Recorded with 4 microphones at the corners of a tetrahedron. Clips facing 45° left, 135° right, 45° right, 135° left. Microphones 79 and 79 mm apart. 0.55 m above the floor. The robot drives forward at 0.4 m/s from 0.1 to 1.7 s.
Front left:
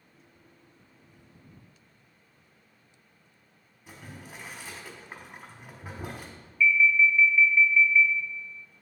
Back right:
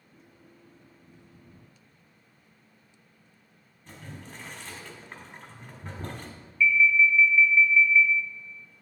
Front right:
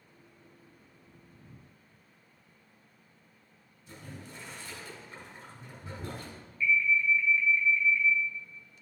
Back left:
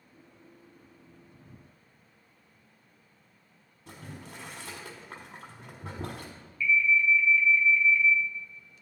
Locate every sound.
3.9 s boiling: 125° left, 1.1 m
6.6 s an alarm: 35° right, 0.9 m